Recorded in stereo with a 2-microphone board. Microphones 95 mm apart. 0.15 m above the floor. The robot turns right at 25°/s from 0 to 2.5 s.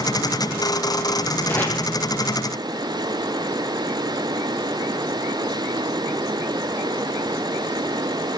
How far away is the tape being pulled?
About 6.5 m.